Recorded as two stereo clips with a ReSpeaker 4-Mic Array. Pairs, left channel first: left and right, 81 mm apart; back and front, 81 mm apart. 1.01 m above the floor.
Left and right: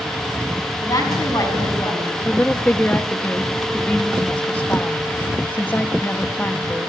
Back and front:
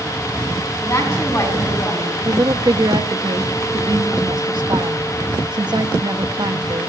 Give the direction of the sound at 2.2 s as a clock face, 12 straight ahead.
11 o'clock.